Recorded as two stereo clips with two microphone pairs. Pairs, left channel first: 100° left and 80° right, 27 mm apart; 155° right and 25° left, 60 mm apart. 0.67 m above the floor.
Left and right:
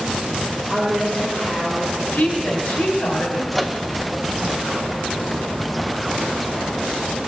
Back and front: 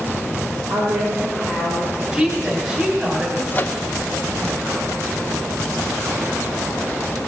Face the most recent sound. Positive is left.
turn(degrees=-170)